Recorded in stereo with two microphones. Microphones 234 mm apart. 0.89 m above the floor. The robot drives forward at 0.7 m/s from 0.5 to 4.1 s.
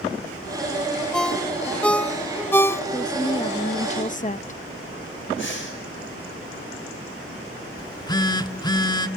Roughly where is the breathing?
Left.